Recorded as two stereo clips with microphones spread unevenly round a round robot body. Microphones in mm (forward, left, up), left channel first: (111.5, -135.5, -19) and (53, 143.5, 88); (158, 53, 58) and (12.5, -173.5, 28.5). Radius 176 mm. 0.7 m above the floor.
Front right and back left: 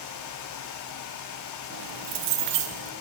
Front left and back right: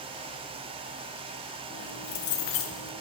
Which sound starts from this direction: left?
Keys jangling, at 1.7 s.